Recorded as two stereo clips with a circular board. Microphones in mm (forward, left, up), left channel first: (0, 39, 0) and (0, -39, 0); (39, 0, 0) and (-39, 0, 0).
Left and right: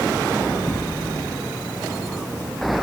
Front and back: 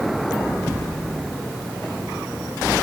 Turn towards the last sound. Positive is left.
No sound to turn to.